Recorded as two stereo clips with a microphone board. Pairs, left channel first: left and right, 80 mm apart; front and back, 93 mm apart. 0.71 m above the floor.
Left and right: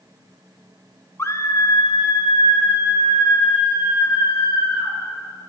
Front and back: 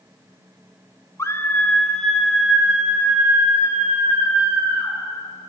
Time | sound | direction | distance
1.2 | a scream | 45° left | 0.7 m